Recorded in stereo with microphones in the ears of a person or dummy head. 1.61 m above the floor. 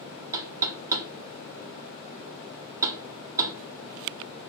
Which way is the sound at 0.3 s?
20° right (ahead or behind).